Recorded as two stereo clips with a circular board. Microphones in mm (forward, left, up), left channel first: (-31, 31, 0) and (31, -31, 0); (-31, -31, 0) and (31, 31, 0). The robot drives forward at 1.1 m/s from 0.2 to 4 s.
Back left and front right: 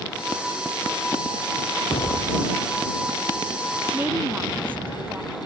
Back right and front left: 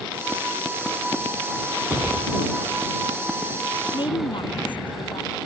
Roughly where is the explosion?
Behind left.